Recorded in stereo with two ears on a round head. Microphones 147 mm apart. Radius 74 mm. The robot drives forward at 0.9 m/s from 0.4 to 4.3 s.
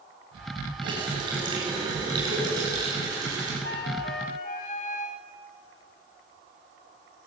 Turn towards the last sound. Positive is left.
turn(degrees=55)  # may be behind; listen again after turning